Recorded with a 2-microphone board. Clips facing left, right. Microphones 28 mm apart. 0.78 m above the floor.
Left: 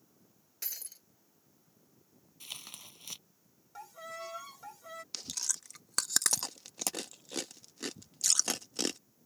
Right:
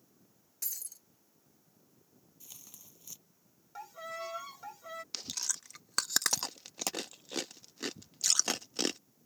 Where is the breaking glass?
30° left (ahead or behind).